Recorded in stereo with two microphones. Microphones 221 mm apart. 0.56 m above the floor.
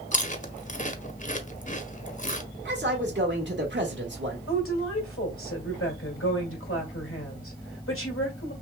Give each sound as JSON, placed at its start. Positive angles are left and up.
{"t": 0.1, "sound": "chewing", "side_deg": 35, "distance_m": 0.7}
{"t": 2.6, "sound": "a man speaking", "side_deg": -50, "distance_m": 1.4}
{"t": 4.5, "sound": "a woman speaking", "side_deg": 65, "distance_m": 1.9}